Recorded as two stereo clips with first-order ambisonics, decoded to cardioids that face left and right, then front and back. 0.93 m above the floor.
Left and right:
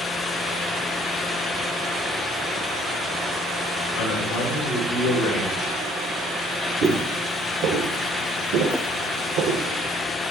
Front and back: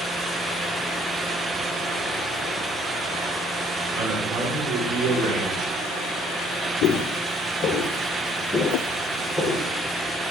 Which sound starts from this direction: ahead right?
Footsteps, at 6.8 s.